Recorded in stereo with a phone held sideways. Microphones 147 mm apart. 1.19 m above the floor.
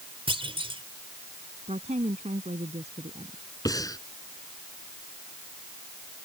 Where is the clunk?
40° right (ahead or behind).